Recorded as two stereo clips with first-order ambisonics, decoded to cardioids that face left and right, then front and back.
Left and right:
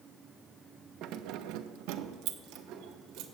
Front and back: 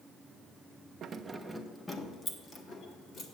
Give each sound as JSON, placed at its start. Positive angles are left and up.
{"t": 1.0, "sound": "keys jangling", "azimuth_deg": -125, "distance_m": 0.5}